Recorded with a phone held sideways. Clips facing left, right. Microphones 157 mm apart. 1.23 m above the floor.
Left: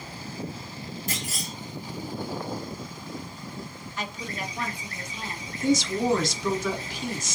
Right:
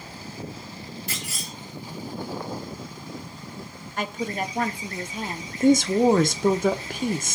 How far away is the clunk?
About 1.7 m.